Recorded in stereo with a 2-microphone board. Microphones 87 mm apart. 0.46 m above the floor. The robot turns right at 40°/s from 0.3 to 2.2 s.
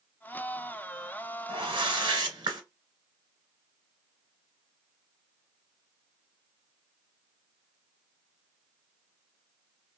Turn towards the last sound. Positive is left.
turn(degrees=-65)  # may be behind; listen again after turning